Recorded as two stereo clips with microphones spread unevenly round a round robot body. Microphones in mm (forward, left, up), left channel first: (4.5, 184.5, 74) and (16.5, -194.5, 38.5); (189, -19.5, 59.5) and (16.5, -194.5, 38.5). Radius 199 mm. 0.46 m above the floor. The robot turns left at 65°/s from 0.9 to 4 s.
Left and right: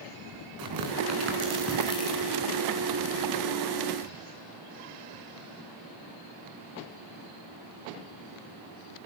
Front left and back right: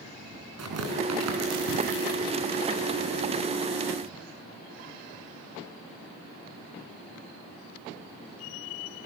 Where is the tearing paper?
125° right, 4 m; by 2.3 s 145° left, 4 m.